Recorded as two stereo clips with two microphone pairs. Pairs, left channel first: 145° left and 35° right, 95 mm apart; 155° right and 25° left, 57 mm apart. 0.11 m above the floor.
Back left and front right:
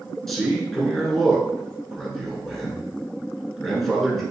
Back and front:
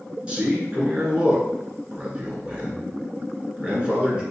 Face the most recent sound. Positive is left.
turn(degrees=60)